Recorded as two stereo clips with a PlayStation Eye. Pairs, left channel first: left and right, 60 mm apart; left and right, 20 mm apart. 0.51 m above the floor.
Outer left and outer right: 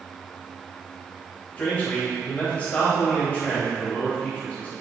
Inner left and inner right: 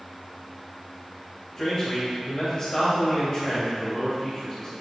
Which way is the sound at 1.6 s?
25° left (ahead or behind).